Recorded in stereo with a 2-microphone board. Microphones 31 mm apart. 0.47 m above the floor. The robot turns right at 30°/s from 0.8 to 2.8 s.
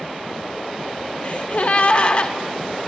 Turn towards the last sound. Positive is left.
turn(degrees=145)